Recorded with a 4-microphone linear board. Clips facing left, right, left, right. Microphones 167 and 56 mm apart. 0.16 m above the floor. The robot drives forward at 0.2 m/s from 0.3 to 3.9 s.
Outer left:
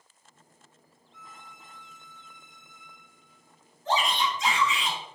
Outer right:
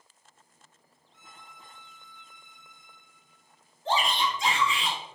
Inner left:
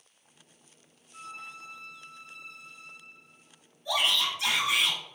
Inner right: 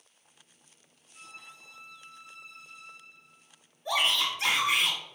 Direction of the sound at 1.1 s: 80° left.